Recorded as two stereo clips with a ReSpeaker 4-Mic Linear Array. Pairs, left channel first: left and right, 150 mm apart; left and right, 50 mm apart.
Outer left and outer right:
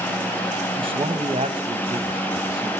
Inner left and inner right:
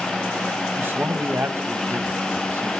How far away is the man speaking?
About 1.8 m.